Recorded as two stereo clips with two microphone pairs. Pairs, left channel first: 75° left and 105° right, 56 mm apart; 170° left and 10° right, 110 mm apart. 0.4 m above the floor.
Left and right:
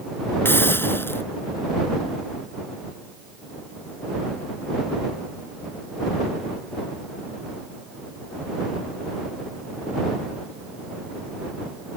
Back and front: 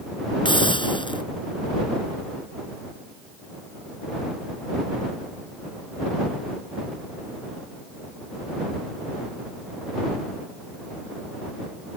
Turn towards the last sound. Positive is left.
turn(degrees=125)